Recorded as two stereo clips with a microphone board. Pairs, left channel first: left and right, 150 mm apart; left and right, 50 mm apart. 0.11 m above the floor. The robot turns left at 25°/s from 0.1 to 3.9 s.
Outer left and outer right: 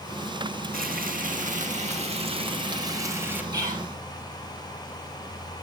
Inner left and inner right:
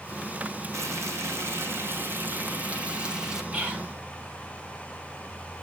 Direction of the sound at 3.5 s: 25° right (ahead or behind).